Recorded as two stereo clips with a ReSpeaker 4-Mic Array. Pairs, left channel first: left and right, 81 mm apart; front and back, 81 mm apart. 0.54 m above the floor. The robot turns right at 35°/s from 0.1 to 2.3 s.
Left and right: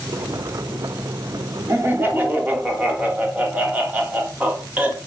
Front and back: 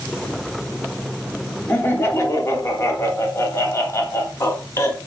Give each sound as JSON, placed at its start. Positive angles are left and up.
{"t": 1.7, "sound": "laughter", "azimuth_deg": -55, "distance_m": 0.7}